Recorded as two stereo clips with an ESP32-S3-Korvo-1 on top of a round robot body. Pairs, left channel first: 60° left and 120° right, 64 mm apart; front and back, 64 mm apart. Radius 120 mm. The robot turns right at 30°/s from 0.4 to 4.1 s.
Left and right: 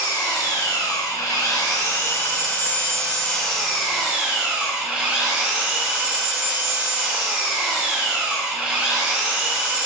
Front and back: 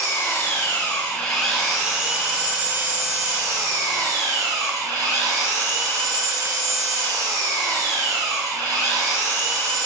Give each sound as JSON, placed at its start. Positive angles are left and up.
{"t": 0.0, "sound": "an engine running", "azimuth_deg": 55, "distance_m": 1.3}